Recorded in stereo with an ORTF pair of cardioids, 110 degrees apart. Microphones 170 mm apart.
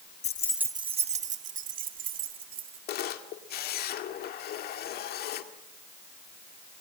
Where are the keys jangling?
45° left, 0.6 m; by 2.8 s 60° right, 3.5 m.